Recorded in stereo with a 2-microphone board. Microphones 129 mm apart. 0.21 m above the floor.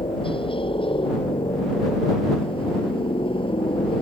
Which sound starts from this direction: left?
A helicopter, at 0.0 s.